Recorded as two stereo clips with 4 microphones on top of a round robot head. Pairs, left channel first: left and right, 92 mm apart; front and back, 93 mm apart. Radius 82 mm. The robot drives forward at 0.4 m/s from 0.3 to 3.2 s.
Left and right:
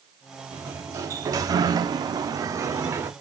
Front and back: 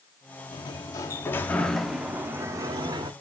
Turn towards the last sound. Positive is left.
turn(degrees=-150)